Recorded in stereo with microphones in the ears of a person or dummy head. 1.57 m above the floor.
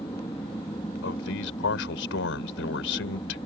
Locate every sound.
0.0 s an aircraft: 15° left (ahead or behind)
1.0 s a man speaking: 75° left (ahead or behind)